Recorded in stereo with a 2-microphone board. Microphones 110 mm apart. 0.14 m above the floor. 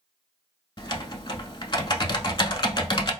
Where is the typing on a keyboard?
45° left (ahead or behind), 0.5 m.